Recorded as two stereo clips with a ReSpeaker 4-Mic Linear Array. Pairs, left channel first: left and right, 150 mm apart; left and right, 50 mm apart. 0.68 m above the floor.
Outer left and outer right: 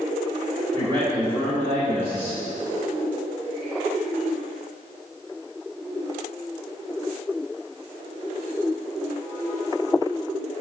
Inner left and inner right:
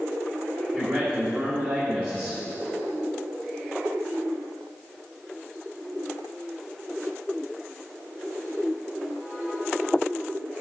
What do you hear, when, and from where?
0.7 s a man speaking: 20° left (ahead or behind), 2.5 m